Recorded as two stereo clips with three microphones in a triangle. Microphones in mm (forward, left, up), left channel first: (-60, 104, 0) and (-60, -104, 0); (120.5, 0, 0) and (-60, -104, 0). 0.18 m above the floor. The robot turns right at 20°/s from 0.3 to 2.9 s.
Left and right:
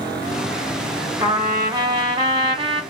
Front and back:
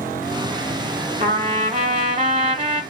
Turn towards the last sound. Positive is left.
turn(degrees=-120)